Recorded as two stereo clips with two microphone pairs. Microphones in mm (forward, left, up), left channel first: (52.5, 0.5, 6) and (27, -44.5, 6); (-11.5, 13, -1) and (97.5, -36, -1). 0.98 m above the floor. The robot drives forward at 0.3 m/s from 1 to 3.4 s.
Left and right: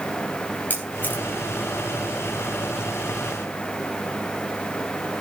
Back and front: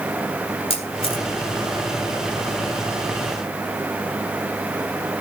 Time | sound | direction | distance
0.7 | a camera shutter | 115° left | 2.5 m